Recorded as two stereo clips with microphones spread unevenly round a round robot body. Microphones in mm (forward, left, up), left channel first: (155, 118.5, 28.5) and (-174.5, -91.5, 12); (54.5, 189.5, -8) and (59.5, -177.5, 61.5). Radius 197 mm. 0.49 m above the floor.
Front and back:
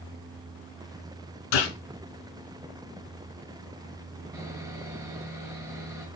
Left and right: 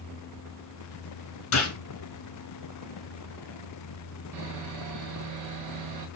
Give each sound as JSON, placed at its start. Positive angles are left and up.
{"t": 1.5, "sound": "a gunshot", "azimuth_deg": 40, "distance_m": 3.0}
{"t": 4.3, "sound": "sawing", "azimuth_deg": -65, "distance_m": 1.7}